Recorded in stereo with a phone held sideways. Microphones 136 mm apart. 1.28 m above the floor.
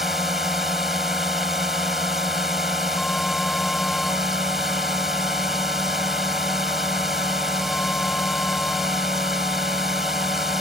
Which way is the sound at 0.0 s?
Centre (ahead or behind).